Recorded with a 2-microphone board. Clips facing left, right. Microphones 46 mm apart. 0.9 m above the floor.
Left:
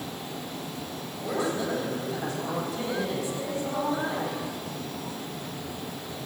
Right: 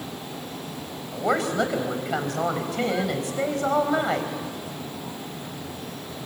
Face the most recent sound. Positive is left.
turn(degrees=-75)  # may be behind; listen again after turning